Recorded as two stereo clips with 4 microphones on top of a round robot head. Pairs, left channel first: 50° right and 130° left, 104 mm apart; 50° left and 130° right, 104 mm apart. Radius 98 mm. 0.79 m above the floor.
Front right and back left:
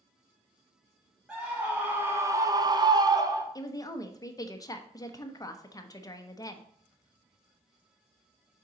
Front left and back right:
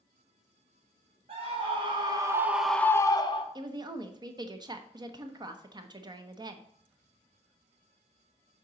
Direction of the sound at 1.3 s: 150° right.